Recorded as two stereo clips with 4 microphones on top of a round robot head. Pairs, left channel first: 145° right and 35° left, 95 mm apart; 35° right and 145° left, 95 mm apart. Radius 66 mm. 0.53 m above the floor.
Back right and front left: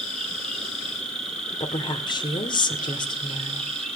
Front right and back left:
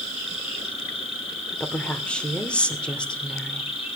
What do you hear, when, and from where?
0.0 s an insect: 60° right, 5 m
1.6 s a woman speaking: 115° right, 2 m